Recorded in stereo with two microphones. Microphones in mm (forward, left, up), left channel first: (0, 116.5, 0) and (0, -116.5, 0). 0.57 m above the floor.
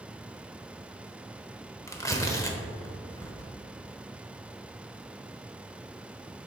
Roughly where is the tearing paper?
Centre.